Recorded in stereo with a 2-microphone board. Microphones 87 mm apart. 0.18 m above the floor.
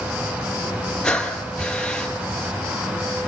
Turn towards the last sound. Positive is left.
turn(degrees=10)  # may be behind; listen again after turning